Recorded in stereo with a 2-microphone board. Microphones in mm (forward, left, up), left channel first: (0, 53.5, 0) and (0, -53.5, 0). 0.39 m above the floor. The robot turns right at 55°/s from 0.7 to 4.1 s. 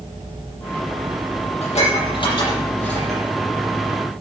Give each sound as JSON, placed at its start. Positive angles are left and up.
{"t": 1.6, "sound": "dishes clattering", "side_deg": 80, "distance_m": 6.5}